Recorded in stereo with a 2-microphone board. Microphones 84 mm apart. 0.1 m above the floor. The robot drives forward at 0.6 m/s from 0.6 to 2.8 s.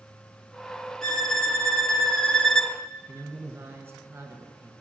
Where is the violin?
5° left (ahead or behind), 1.6 m; by 2.8 s 10° left (ahead or behind), 0.9 m.